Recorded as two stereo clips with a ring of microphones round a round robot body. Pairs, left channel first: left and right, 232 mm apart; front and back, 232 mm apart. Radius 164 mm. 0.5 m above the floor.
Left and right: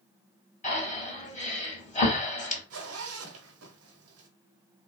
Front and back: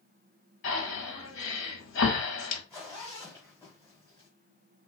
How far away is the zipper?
About 0.8 m.